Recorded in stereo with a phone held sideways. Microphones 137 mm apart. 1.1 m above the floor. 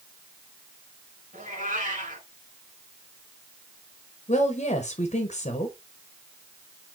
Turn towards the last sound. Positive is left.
turn(degrees=50)  # may be behind; listen again after turning